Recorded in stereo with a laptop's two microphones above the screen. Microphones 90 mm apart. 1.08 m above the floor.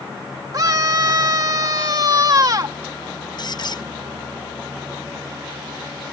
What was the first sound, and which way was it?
A scream, 45° right (ahead or behind).